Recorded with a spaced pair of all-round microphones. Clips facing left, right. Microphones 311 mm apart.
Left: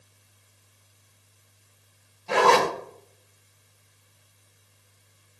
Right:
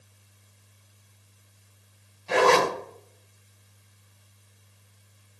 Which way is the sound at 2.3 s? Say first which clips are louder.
Even; 55° left (ahead or behind).